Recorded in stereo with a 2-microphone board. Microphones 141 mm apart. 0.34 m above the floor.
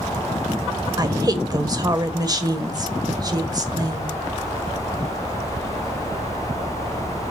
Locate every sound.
1.0 s a woman speaking: 30° right (ahead or behind), 1.3 m